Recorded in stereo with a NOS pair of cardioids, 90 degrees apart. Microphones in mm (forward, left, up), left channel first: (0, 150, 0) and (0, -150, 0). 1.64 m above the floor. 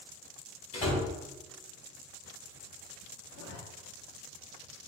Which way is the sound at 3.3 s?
55° left.